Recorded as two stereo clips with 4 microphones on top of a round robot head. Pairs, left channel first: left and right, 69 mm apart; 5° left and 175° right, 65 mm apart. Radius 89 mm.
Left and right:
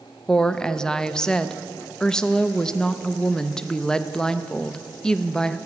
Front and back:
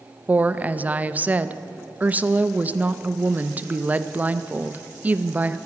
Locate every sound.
0.3 s a woman speaking: 160° left, 0.5 m